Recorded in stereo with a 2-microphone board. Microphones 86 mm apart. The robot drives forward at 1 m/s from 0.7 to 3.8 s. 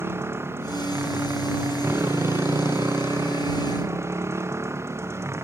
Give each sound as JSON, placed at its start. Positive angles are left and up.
{"t": 0.0, "sound": "a motorcycle", "side_deg": -30}